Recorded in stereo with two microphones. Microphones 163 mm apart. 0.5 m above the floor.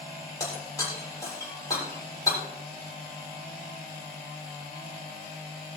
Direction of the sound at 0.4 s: 20° left (ahead or behind).